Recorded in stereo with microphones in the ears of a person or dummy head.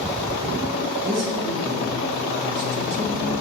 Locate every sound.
1.1 s a man speaking: 65° right (ahead or behind), 1.1 m